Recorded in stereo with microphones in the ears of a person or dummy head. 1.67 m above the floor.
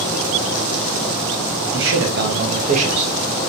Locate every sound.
1.7 s a man speaking: 70° right (ahead or behind), 0.9 m; by 3.1 s 25° right (ahead or behind), 0.7 m